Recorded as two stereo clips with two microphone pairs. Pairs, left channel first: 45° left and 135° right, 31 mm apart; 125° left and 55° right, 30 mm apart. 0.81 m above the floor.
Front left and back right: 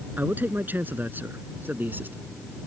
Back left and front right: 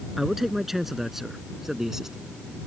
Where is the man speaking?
140° right; by 2.2 s 130° right.